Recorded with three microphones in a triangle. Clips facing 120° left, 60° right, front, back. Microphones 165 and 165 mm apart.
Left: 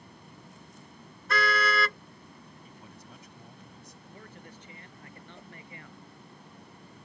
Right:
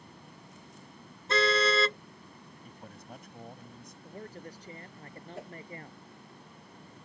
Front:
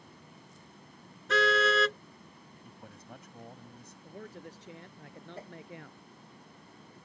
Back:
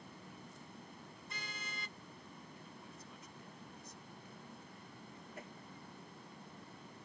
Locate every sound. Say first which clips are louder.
1.3 s a car horn: right 2 dB, front 27 dB; 5° left
2.6 s a man speaking: right 2 dB, front 4 dB; 25° right
4.0 s a man speaking: right 7 dB, front 9 dB; 5° right
5.3 s a whoosh: right 7 dB, front 6 dB; 60° right